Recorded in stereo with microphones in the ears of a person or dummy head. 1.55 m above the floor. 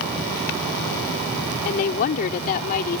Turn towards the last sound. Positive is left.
turn(degrees=50)  # may be behind; listen again after turning